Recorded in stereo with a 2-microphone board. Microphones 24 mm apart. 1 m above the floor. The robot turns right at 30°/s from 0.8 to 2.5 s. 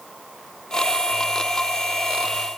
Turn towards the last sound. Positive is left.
No sound to turn to.